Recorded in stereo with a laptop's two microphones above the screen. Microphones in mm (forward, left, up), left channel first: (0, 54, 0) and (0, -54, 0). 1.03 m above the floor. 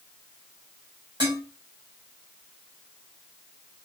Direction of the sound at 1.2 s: 40° right (ahead or behind).